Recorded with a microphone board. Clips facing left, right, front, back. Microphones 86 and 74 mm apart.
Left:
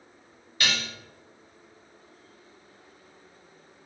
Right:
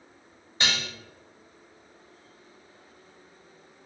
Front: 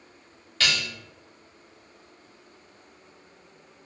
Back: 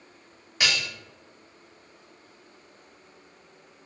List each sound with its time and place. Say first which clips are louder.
0.6 s dishes clattering: even, even; 125° right, 0.8 m